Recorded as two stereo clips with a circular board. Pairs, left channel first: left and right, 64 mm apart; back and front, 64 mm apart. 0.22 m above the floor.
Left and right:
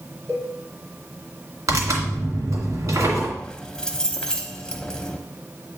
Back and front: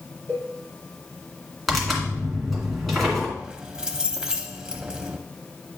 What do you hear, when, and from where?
0.3 s a cowbell: 130° right, 3 m
1.7 s tearing paper: 90° right, 2.5 m
3.4 s keys jangling: 45° left, 0.7 m